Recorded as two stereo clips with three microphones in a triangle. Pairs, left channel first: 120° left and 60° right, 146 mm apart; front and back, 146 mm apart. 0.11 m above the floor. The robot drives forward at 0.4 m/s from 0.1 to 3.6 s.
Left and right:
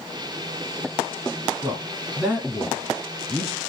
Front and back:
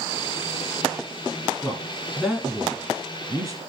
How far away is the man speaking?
About 1.4 m.